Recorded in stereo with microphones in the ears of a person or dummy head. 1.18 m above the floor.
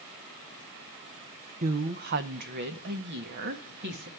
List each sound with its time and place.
1.6 s a woman speaking: 45° right (ahead or behind), 0.6 m; by 4.1 s 60° right (ahead or behind), 1.9 m